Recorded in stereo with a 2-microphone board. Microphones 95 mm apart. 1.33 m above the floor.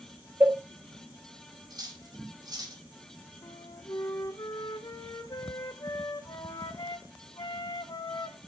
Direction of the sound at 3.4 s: 45° left (ahead or behind).